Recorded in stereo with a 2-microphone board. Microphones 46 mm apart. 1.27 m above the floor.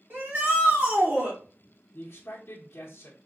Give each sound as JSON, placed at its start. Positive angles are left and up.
{"t": 0.1, "sound": "a shout", "side_deg": -50, "distance_m": 2.5}
{"t": 1.9, "sound": "a man speaking", "side_deg": 55, "distance_m": 1.1}